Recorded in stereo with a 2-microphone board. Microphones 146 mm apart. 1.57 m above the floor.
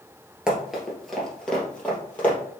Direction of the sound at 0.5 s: 5° right (ahead or behind).